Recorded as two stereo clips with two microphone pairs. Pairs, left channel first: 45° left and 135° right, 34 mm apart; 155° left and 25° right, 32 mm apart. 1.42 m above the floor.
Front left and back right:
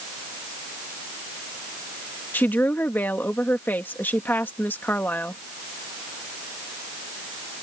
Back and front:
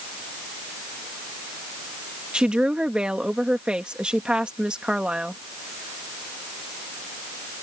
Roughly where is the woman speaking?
Ahead left.